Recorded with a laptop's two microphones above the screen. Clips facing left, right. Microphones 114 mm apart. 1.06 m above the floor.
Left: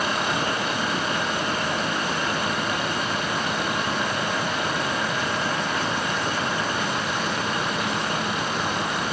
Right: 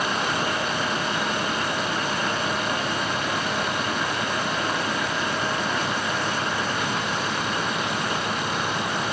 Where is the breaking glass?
No breaking glass in this recording.